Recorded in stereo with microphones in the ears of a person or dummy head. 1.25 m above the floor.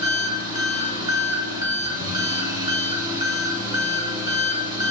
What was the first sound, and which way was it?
An engine running, 25° right (ahead or behind).